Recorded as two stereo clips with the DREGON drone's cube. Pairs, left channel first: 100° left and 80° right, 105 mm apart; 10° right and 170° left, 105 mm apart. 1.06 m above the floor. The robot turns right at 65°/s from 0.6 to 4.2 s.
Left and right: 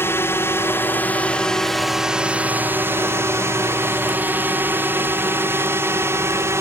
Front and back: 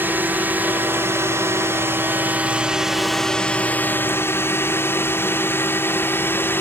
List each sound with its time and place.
0.0 s a drone: 125° left; by 6.6 s 55° right